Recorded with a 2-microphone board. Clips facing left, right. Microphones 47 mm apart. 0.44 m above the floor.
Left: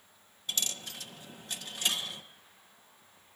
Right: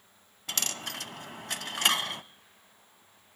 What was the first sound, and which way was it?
A dropped coin, 75° right (ahead or behind).